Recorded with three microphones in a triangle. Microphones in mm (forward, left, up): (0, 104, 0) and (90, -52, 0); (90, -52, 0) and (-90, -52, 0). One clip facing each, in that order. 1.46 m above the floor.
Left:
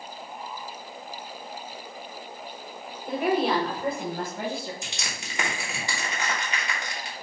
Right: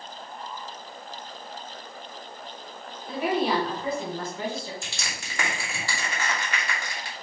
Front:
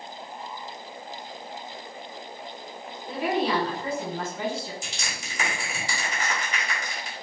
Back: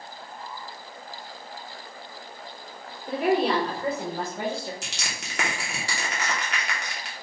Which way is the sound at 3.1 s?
155° left.